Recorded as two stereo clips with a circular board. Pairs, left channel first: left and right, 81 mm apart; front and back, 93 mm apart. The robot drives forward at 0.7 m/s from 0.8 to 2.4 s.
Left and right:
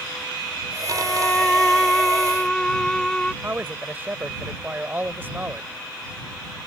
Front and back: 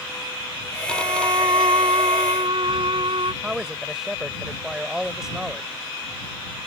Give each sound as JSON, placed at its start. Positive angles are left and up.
{"t": 0.9, "sound": "a violin", "azimuth_deg": 160}
{"t": 3.4, "sound": "a man speaking", "azimuth_deg": -105}